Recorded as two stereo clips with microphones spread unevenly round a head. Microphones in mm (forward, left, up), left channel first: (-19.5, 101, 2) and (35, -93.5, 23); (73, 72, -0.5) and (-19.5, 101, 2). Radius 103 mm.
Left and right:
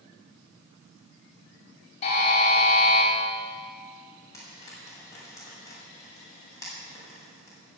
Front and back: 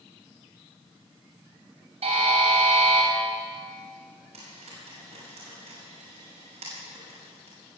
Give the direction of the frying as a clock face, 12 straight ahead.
6 o'clock.